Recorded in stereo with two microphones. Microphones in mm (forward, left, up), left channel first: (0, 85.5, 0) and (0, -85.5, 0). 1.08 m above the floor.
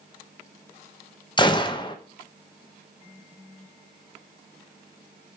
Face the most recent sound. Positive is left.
turn(degrees=30)  # may be behind; listen again after turning